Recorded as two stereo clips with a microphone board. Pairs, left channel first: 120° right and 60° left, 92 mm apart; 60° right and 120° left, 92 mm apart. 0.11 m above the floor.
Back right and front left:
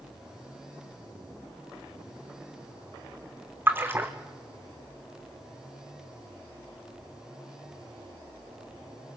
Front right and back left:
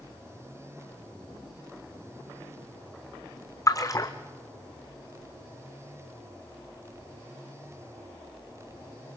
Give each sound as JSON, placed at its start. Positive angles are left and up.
{"t": 3.7, "sound": "a splash", "azimuth_deg": -10, "distance_m": 1.7}